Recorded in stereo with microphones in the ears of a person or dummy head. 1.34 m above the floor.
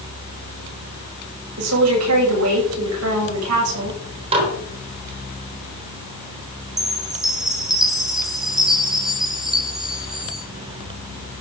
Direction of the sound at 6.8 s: Centre (ahead or behind).